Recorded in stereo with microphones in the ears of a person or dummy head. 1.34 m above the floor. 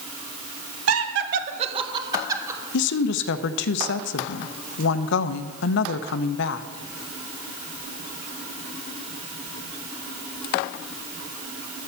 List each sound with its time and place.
0.9 s laughter: 75° right (ahead or behind), 0.9 m; by 2.6 s 15° right (ahead or behind), 2.5 m
2.7 s a woman speaking: 70° left (ahead or behind), 0.7 m